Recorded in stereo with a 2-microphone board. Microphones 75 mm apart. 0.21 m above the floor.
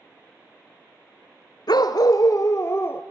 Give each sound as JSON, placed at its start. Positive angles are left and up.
{"t": 1.7, "sound": "a dog barking", "side_deg": 75, "distance_m": 1.2}